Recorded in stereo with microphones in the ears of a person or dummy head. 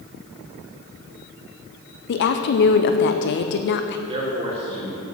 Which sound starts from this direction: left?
A woman speaking, at 2.1 s.